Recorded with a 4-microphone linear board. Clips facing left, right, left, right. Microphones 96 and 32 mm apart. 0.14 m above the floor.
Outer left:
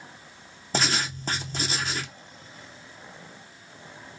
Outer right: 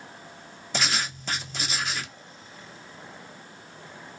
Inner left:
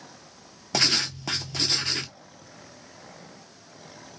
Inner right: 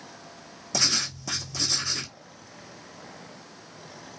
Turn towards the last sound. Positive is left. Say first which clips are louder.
# outer left 2 dB, inner left 3 dB
turn(degrees=40)  # may be behind; listen again after turning